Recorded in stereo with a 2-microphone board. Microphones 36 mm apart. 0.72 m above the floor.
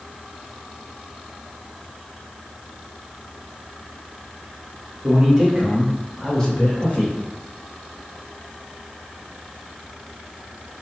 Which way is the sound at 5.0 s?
20° right (ahead or behind).